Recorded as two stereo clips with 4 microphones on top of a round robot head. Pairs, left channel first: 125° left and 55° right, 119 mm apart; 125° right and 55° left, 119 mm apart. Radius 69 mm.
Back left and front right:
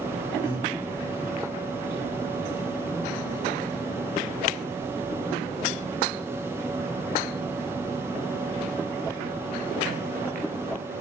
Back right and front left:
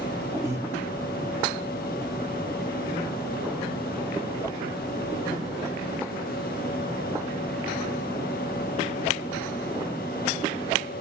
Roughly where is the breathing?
Behind left.